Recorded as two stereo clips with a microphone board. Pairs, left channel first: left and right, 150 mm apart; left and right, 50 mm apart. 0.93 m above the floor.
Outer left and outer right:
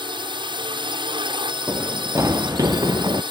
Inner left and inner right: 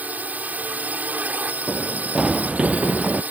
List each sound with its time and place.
0.0 s a drone: 35° right (ahead or behind)
1.7 s running footsteps: 15° right (ahead or behind); by 3.2 s 25° right (ahead or behind)